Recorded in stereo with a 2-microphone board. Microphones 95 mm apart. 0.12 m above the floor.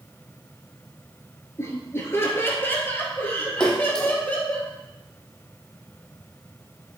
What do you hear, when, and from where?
1.6 s laughter: 30° left (ahead or behind), 2.5 m; by 4.6 s 15° left (ahead or behind), 4 m
3.6 s a splash: 10° left (ahead or behind), 1.9 m